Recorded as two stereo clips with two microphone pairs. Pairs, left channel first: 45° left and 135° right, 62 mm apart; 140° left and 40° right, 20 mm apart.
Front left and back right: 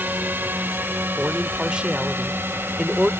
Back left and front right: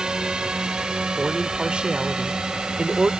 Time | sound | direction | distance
0.0 | a drone | 80° right | ?
1.2 | a man speaking | 60° right | ?